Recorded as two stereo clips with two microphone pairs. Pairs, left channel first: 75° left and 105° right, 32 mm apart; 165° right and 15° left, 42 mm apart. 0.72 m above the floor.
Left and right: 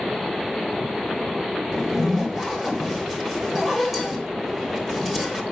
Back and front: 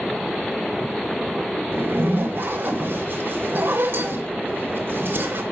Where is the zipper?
20° right, 3.5 m.